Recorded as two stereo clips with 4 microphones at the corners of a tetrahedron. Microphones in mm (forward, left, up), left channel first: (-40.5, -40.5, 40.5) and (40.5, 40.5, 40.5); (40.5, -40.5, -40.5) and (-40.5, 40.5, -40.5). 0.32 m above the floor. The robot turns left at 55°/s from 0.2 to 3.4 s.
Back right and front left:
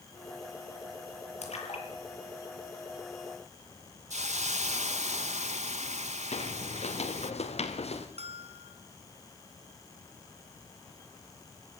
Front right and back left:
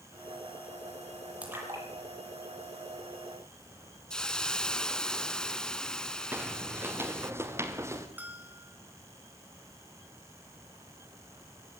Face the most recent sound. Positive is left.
turn(degrees=60)